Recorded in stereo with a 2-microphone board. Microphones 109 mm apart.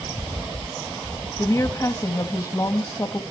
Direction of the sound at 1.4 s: 30° left (ahead or behind).